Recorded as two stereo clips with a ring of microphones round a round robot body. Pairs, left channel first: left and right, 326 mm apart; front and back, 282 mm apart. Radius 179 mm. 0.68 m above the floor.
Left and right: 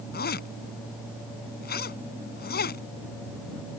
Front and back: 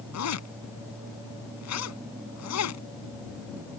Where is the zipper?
25° left.